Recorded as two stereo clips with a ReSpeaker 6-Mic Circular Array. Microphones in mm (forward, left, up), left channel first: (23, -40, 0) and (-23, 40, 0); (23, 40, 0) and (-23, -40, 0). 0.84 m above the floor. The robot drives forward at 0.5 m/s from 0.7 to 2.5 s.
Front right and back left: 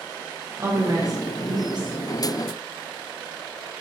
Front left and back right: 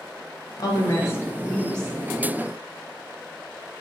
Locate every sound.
0.6 s a woman speaking: 80° left, 0.6 m; by 1.9 s 145° left, 0.8 m